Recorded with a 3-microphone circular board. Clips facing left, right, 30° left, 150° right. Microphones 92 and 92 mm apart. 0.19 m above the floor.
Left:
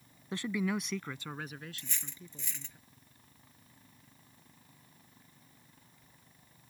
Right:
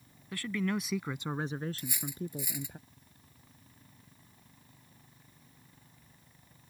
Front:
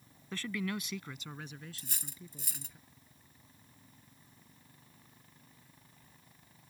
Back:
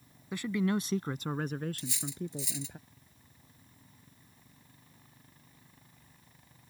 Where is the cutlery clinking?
10° right.